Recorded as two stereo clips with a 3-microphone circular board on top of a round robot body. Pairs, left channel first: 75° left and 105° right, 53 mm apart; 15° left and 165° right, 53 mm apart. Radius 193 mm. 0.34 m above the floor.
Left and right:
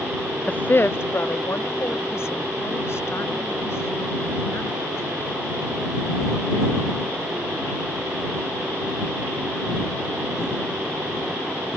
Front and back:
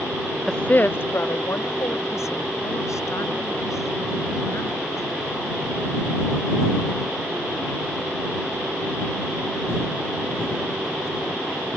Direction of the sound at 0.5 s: 90° left.